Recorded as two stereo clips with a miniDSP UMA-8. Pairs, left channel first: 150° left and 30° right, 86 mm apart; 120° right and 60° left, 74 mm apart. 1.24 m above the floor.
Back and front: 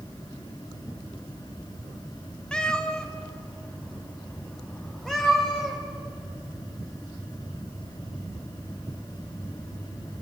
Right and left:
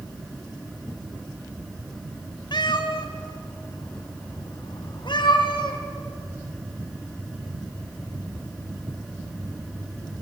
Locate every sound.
2.5 s a cat meowing: 130° right, 1.6 m; by 5.8 s 125° right, 4 m